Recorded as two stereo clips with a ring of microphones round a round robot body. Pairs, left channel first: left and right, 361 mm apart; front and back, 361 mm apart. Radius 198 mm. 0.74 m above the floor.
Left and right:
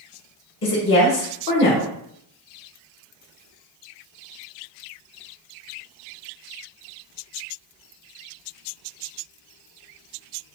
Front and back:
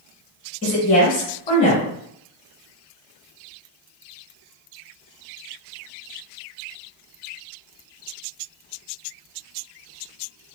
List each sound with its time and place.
0.6 s a woman speaking: 65° left, 1.0 m